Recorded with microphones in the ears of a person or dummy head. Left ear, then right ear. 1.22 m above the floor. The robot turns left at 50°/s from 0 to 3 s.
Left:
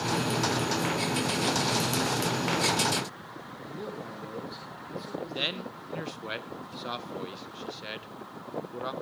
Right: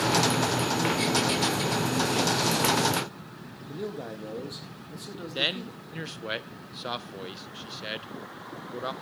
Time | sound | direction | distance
3.7 | a man speaking | 25° right (ahead or behind) | 1.7 m
5.3 | a man speaking | 5° right (ahead or behind) | 0.5 m